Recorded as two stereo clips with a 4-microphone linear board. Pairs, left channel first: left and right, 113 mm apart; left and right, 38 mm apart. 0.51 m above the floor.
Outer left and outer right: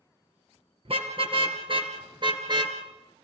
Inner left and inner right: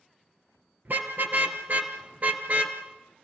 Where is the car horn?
60° right (ahead or behind), 4 m; by 2.8 s 40° right (ahead or behind), 3 m.